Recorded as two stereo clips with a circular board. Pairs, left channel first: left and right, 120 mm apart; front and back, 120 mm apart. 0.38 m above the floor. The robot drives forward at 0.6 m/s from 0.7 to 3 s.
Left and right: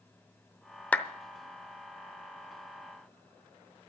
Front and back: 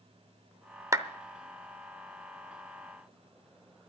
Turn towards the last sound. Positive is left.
turn(degrees=175)